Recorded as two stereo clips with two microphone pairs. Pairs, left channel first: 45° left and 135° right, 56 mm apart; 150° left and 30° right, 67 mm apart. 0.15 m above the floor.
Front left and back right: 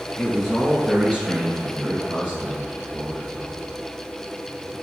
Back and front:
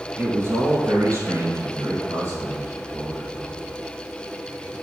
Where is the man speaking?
35° right, 1.1 m; by 3.6 s 75° right, 5.5 m.